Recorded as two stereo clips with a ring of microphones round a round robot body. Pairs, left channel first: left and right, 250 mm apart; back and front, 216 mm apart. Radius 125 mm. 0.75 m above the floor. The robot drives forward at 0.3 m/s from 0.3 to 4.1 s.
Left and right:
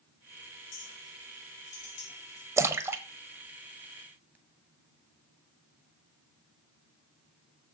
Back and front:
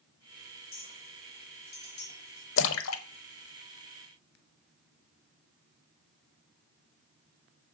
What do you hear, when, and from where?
0.7 s a clink: 135° left, 2.5 m; by 2.5 s 140° left, 3 m
2.6 s a splash: 170° right, 0.8 m; by 4.3 s 175° right, 1.2 m